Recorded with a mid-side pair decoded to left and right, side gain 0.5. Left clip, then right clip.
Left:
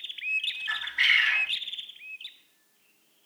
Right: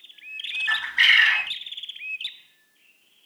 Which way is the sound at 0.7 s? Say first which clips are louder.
Right 6 dB; 60° right.